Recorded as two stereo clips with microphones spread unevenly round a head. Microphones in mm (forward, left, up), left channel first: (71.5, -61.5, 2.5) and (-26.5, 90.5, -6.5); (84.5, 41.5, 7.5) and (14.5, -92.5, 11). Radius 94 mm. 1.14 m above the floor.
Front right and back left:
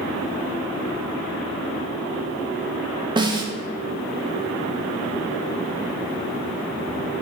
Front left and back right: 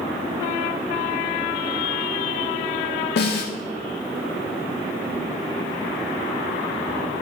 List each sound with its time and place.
3.2 s a snare drum: 55° left, 1.2 m